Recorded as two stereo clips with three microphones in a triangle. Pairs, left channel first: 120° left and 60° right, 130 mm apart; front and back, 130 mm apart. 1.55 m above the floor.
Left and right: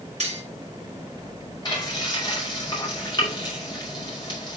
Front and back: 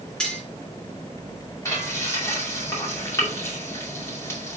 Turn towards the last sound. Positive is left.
turn(degrees=65)